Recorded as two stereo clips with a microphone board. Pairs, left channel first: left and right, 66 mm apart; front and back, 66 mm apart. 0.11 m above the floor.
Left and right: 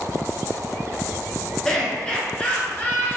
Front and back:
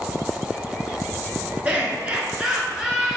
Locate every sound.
1.6 s laughter: 160° left, 1.8 m; by 3.2 s 105° left, 2.0 m